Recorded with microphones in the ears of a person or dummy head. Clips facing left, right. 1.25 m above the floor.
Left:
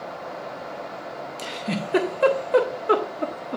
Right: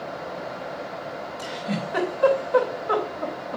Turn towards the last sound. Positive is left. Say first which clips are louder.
# even
turn(degrees=30)  # may be behind; listen again after turning